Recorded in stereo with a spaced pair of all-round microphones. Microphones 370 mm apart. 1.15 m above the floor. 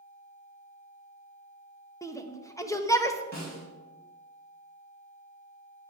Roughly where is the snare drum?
Left.